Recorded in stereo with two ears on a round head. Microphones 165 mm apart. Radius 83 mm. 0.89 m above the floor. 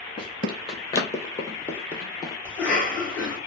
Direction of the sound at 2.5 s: 10° left (ahead or behind).